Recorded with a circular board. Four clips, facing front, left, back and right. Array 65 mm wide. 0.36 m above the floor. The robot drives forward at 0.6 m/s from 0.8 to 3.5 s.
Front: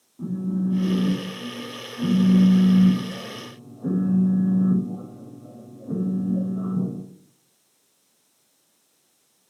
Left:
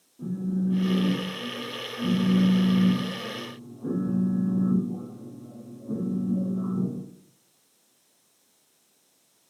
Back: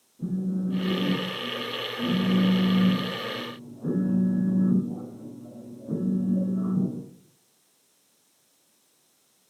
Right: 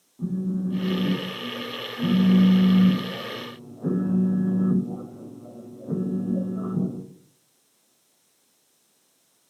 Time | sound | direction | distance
0.2 | a phone buzzing | 30° right | 2 m